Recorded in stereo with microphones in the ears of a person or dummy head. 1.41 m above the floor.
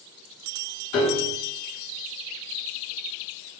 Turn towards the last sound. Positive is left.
turn(degrees=40)  # may be behind; listen again after turning